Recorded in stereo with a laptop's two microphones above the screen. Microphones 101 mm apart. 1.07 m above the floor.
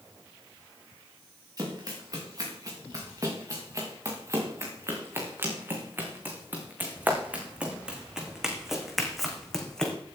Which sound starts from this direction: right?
Running footsteps, at 1.6 s.